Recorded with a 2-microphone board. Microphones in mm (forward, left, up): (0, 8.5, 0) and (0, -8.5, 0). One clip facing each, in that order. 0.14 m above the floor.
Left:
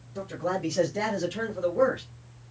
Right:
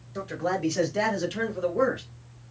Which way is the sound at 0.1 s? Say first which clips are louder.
Right 2 dB; 40° right (ahead or behind).